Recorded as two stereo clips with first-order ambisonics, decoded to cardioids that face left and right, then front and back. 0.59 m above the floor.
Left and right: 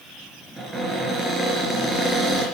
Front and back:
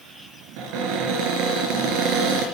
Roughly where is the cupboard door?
Behind.